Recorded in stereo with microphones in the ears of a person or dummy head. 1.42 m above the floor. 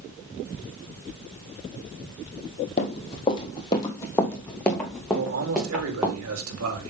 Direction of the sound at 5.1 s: 85° right.